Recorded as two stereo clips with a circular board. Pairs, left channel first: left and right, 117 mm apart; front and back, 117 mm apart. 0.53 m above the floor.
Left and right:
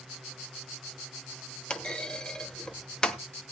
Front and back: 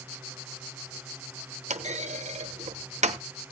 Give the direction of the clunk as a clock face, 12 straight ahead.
6 o'clock.